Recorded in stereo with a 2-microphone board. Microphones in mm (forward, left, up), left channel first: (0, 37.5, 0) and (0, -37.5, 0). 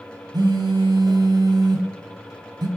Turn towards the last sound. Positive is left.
turn(degrees=-70)  # may be behind; listen again after turning